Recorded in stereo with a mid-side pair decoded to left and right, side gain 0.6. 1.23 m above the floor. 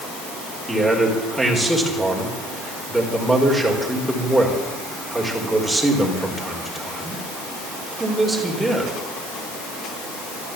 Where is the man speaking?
5° right, 5 m.